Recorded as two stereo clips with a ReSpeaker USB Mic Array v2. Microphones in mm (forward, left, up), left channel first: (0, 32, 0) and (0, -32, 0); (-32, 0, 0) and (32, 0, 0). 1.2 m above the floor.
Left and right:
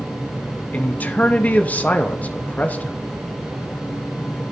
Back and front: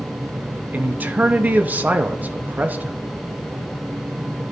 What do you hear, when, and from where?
0.7 s a man speaking: 40° left, 0.7 m